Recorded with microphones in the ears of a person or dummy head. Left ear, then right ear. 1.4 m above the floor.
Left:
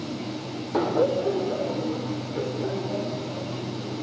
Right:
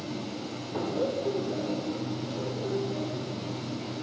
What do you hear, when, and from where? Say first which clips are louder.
0.7 s laughter: left 7 dB; 55° left (ahead or behind), 0.7 m; by 3.9 s 45° left (ahead or behind), 4.5 m